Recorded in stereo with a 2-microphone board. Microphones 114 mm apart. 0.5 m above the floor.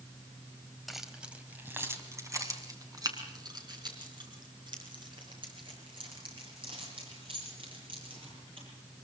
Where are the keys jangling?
Centre (ahead or behind), 2 m; by 8.7 s 50° right (ahead or behind), 11 m.